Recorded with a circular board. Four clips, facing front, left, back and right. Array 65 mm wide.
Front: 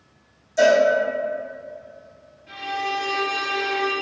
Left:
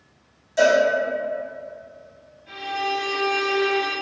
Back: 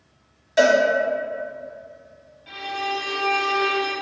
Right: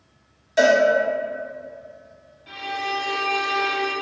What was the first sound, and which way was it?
A cowbell, 155° right.